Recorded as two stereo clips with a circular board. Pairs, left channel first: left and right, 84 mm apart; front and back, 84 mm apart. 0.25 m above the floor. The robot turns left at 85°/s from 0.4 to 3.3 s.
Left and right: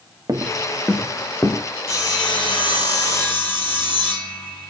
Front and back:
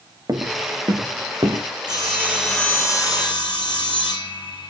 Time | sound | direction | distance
0.3 | footsteps | 135° right | 1.6 m
1.9 | sawing | 145° left | 8 m